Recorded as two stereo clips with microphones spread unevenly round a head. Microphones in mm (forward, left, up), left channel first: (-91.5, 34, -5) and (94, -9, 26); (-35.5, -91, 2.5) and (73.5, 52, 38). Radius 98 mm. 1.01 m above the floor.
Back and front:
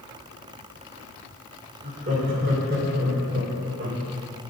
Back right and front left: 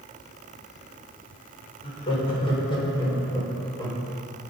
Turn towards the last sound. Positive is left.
turn(degrees=-55)